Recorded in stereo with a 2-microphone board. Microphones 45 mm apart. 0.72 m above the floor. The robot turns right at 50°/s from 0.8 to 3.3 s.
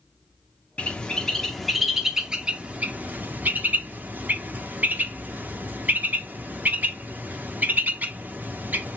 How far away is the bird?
About 0.6 m.